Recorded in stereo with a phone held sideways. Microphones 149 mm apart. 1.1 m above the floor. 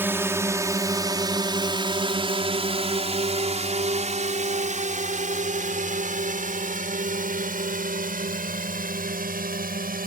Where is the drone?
15° right (ahead or behind); by 10.1 s 75° right (ahead or behind).